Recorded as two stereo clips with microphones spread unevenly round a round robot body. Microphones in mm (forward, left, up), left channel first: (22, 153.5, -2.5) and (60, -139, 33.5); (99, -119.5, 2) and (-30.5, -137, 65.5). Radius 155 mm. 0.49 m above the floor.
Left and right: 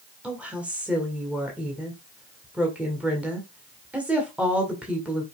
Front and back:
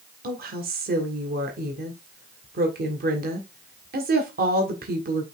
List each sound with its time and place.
0.2 s a woman speaking: 175° right, 1.9 m